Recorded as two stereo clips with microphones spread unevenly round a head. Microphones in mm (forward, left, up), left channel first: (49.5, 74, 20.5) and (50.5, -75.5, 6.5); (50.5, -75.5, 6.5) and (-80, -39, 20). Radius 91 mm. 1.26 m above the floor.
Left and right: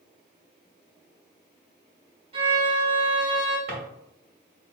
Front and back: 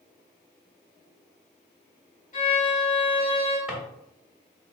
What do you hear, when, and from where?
2.3 s a violin: 40° right, 2 m
3.7 s a drawer: 115° right, 1.6 m